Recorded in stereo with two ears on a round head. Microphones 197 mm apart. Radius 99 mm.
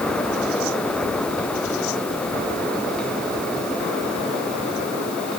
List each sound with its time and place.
Only background noise.